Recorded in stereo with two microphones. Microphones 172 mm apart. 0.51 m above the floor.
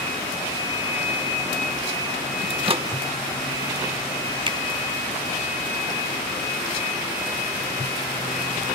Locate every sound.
2.5 s a microwave: 35° right (ahead or behind)
4.5 s a finger snap: 30° right (ahead or behind)